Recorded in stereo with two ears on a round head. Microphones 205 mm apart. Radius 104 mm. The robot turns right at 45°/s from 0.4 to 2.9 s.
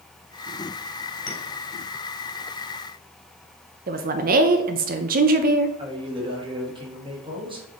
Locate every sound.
1.3 s a clink: 45° left (ahead or behind), 3.5 m; by 1.4 s 40° left (ahead or behind), 3.5 m
3.9 s a woman speaking: 40° right (ahead or behind), 0.6 m
5.8 s a man speaking: 25° right (ahead or behind), 1.6 m